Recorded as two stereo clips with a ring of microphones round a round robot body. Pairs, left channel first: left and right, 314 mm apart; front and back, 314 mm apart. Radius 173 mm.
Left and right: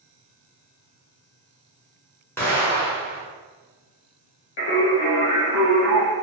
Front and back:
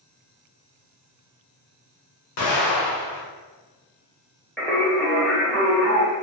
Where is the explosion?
5° left, 1.2 m.